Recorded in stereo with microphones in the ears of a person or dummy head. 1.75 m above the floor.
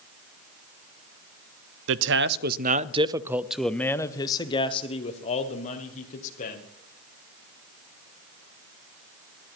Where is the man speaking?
75° right (ahead or behind), 0.8 m; by 6.6 s 45° left (ahead or behind), 2.0 m.